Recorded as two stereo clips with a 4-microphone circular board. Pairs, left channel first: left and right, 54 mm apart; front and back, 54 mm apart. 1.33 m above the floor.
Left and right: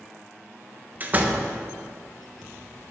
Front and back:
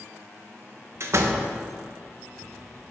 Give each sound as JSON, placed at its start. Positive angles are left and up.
{"t": 1.0, "sound": "a door slam", "azimuth_deg": -145, "distance_m": 0.9}